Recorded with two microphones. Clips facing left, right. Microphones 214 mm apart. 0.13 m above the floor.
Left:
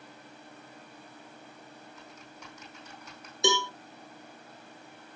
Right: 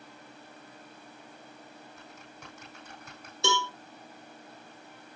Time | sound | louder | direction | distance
2.0 | typing on a keyboard | even | 55° right (ahead or behind) | 6 m
3.4 | a cowbell | left 3 dB | 15° left (ahead or behind) | 1.6 m